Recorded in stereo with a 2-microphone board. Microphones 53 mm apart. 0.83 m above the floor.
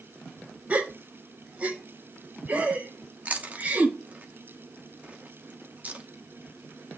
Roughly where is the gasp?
Right.